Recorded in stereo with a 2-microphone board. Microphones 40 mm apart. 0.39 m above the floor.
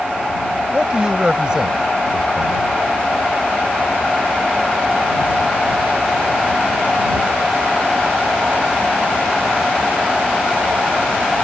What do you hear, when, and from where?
0.7 s a man speaking: 20° right (ahead or behind)